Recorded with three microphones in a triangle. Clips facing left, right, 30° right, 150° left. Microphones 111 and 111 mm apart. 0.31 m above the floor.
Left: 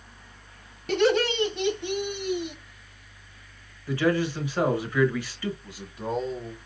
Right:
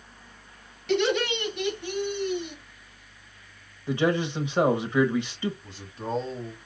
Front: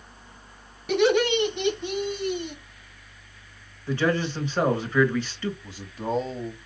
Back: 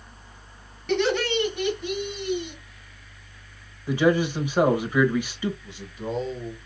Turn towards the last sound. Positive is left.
turn(degrees=10)